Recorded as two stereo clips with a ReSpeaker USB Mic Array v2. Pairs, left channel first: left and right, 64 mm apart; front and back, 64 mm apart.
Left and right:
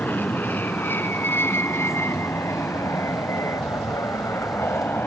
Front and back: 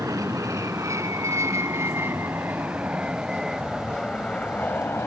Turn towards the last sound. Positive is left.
turn(degrees=40)